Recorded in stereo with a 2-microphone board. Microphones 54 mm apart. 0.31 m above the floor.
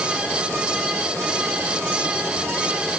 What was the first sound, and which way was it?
Only background noise.